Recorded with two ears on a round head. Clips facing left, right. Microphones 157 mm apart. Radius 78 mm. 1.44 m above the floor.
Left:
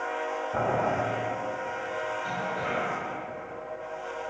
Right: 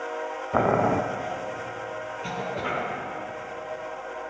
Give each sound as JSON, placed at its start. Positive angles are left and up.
{"t": 0.5, "sound": "boiling", "side_deg": -75, "distance_m": 0.6}
{"t": 2.2, "sound": "a cough", "side_deg": -70, "distance_m": 2.0}